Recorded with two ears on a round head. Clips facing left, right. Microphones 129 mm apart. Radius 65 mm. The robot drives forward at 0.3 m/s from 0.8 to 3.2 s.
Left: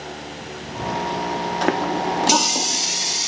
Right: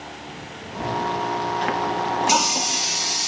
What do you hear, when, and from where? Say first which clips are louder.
1.6 s a running tap: left 2 dB; 55° left (ahead or behind), 0.5 m; by 3.3 s 30° left (ahead or behind), 0.9 m